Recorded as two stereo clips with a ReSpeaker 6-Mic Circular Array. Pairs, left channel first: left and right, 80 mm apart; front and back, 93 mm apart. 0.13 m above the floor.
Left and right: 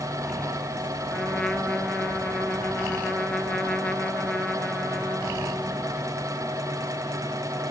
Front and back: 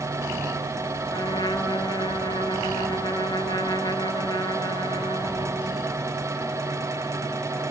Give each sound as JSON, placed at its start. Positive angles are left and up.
{"t": 1.1, "sound": "a trumpet", "azimuth_deg": 10, "distance_m": 1.8}